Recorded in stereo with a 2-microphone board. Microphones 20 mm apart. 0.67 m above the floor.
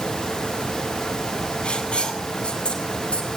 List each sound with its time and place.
1.6 s writing: 55° left (ahead or behind), 4.5 m